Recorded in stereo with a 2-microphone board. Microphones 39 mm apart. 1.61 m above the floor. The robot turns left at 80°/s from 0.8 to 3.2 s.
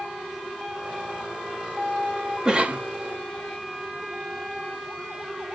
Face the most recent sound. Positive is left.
turn(degrees=-80)